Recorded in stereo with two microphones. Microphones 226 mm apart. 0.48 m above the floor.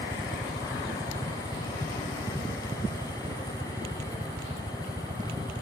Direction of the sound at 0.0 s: 30° right (ahead or behind).